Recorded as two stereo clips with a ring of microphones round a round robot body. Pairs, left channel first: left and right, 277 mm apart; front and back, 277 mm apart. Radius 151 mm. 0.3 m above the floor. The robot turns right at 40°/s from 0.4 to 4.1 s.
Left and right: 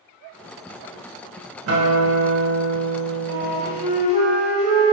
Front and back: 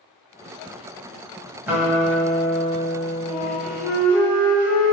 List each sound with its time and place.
1.7 s a guitar: 100° right, 1.7 m; by 3.9 s 10° right, 1.7 m
3.3 s a flute: 65° right, 1.5 m; by 4.9 s 30° right, 1.5 m